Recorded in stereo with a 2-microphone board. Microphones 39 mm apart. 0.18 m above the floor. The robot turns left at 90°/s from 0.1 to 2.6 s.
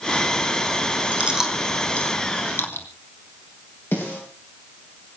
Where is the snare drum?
85° left, 9.5 m.